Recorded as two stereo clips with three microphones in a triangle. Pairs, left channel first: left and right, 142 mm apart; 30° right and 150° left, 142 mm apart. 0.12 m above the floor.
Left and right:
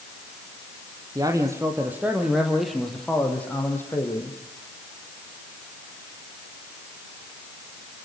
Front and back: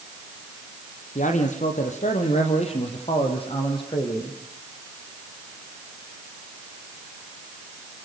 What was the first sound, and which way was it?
A man speaking, 30° right.